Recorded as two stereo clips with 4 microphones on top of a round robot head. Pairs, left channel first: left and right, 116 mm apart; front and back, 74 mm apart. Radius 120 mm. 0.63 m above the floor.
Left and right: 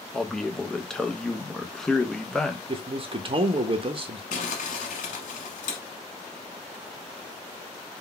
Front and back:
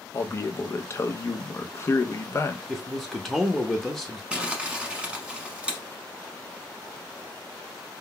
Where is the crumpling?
105° left, 1.0 m.